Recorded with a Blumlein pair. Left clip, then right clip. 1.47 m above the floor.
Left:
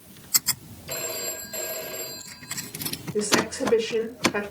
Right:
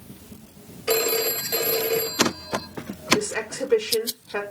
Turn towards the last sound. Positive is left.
turn(degrees=0)